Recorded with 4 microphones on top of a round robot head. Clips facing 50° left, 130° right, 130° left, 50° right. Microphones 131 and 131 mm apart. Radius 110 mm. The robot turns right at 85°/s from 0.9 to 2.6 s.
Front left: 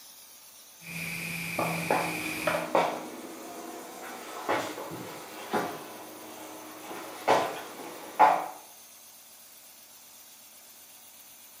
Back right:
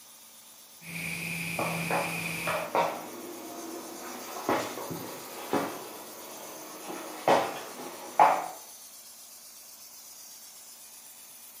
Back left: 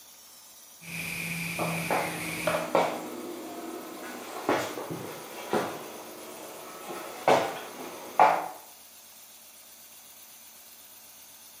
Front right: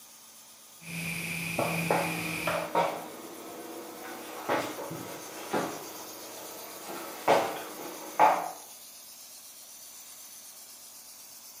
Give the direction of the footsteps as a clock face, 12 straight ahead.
1 o'clock.